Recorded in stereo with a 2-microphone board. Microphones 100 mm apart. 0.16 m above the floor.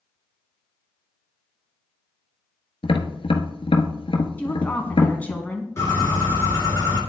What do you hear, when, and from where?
2.8 s tapping: 65° left (ahead or behind), 0.9 m
4.4 s a woman speaking: 15° left (ahead or behind), 1.3 m
5.8 s a bird: 30° left (ahead or behind), 2.5 m